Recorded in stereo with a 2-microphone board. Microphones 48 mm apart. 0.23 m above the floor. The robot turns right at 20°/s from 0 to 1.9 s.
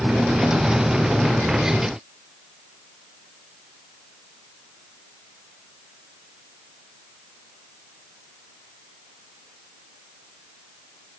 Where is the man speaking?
No man speaking in this recording.